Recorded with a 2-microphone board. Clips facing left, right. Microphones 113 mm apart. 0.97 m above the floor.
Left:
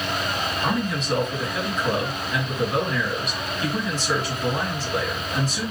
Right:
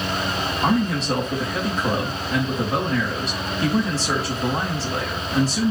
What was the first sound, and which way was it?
A man speaking, 40° right (ahead or behind).